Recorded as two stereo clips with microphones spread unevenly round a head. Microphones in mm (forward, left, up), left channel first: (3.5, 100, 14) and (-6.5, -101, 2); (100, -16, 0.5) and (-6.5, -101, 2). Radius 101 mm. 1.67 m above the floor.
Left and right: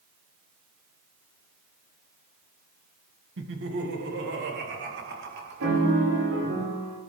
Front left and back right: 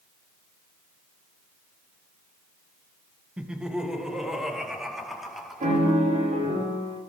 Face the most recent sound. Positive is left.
turn(degrees=-115)